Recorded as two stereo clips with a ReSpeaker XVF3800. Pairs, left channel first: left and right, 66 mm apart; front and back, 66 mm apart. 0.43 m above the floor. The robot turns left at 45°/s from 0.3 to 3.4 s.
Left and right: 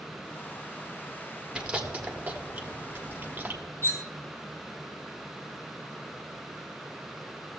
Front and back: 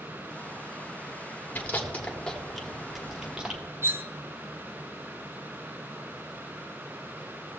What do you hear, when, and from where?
1.6 s chewing: 25° right, 1.1 m; by 3.6 s 110° right, 1.1 m
3.8 s cutlery clinking: 135° left, 0.6 m